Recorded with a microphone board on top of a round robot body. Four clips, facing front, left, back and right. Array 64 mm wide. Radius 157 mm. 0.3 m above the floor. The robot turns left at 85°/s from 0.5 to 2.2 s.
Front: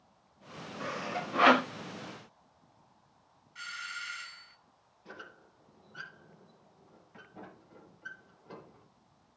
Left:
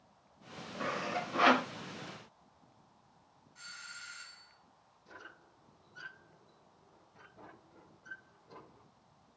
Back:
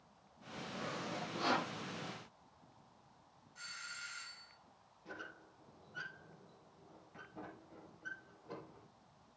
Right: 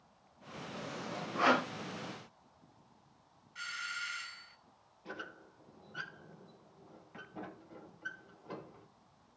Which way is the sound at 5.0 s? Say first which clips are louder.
Right 7 dB, front 1 dB; 80° right.